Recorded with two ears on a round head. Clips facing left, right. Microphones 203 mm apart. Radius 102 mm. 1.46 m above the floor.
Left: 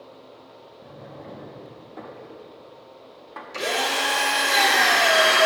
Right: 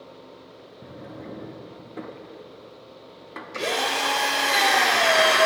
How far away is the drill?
About 2.0 m.